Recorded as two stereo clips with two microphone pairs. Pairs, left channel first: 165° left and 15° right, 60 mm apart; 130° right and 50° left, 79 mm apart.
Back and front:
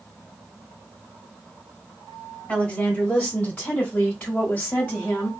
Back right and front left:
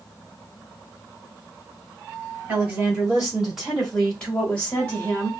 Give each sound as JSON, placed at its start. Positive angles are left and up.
{"t": 2.5, "sound": "a woman speaking", "azimuth_deg": 105, "distance_m": 1.8}